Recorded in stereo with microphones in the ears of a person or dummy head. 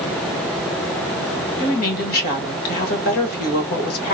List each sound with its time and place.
1.6 s a woman speaking: 50° left (ahead or behind), 1.8 m